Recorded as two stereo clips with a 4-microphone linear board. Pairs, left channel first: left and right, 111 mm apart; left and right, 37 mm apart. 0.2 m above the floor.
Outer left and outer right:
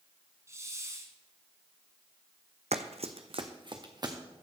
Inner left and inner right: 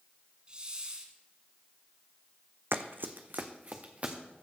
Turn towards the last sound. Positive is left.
turn(degrees=-40)  # may be behind; listen again after turning